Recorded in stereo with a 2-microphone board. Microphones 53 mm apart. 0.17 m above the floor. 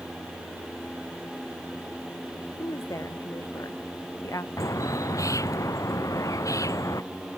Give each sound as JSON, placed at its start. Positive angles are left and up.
{"t": 2.6, "sound": "a woman speaking", "side_deg": 80}
{"t": 4.6, "sound": "a bird", "side_deg": 85}